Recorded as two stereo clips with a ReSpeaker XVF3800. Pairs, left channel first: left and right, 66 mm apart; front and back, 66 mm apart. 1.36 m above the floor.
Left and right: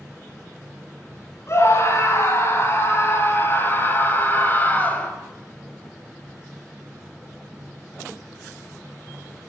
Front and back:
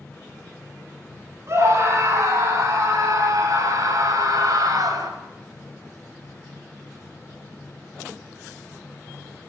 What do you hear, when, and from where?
1.5 s a scream: 135° left, 9.5 m; by 5.1 s 150° left, 7 m